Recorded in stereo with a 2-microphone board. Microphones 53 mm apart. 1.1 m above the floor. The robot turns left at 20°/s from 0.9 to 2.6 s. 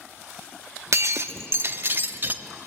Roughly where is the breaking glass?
Right.